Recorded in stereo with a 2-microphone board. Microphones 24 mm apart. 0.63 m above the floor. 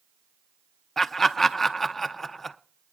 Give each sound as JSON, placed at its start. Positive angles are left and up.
{"t": 1.0, "sound": "laughter", "side_deg": 10, "distance_m": 0.6}